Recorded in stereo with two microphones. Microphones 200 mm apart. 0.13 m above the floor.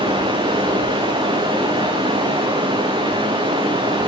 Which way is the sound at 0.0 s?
25° right (ahead or behind).